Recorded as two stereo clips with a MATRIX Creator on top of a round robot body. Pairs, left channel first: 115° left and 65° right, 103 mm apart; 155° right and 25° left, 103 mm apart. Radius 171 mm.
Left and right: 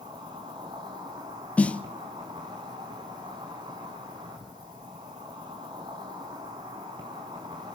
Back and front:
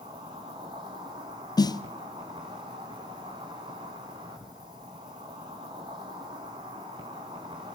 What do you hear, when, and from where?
0.0 s an insect: 20° right, 1.1 m
1.6 s a snare drum: 175° right, 1.0 m